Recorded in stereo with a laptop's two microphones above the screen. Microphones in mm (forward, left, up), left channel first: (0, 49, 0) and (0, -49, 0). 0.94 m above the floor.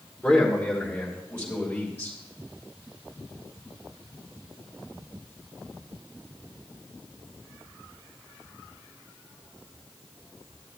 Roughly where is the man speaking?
Centre.